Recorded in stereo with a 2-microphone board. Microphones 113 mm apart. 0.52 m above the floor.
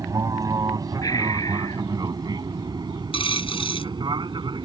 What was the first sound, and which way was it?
An aircraft, 30° right (ahead or behind).